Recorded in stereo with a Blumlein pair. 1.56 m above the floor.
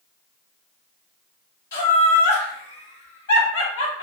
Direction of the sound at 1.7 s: 60° left.